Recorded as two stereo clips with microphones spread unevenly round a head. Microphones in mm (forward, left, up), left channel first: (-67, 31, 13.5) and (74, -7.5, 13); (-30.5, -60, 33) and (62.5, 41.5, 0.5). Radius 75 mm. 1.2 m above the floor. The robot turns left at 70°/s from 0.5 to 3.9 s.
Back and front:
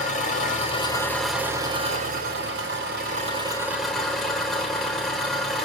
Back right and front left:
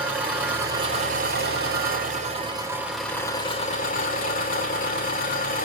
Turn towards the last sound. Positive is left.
turn(degrees=-110)